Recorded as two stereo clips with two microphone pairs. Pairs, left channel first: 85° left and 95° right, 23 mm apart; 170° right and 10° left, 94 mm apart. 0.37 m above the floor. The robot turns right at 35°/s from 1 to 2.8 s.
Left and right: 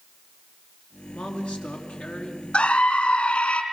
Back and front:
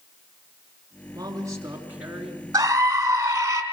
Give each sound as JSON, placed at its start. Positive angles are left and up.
{"t": 1.1, "sound": "a woman speaking", "azimuth_deg": 55, "distance_m": 4.5}
{"t": 2.5, "sound": "a scream", "azimuth_deg": 65, "distance_m": 4.0}